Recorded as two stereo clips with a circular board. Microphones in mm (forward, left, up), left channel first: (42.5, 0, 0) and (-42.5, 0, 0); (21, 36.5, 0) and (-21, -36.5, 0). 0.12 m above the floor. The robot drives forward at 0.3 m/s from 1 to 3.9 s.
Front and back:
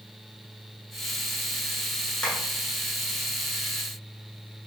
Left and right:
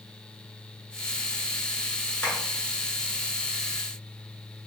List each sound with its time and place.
2.2 s tapping: 65° left, 1.5 m; by 2.4 s 70° left, 1.5 m